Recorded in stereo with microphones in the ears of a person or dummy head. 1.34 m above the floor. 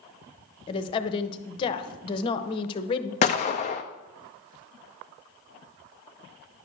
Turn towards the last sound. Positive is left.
turn(degrees=30)  # may be behind; listen again after turning